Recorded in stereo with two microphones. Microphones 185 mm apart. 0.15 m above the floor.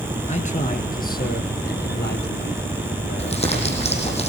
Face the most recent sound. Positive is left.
turn(degrees=35)  # may be behind; listen again after turning